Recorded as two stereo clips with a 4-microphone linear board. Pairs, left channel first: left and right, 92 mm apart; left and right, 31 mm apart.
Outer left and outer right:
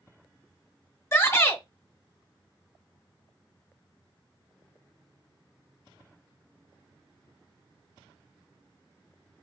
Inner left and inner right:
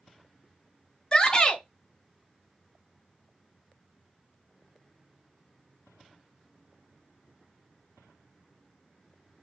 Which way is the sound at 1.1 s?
30° left (ahead or behind).